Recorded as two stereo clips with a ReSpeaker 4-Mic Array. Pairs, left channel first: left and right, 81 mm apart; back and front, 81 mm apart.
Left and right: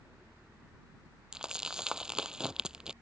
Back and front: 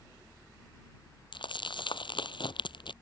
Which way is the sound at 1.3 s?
170° right.